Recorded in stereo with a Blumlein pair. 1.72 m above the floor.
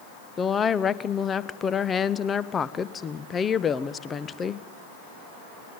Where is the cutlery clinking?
No cutlery clinking in this recording.